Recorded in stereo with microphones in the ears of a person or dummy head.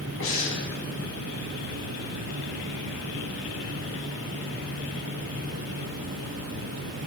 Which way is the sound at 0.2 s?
75° left (ahead or behind).